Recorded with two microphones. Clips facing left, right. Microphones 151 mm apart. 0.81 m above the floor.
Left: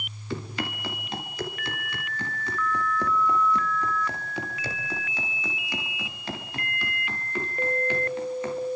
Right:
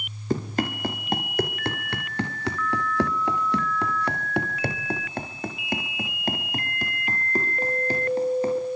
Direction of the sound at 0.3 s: 45° right (ahead or behind).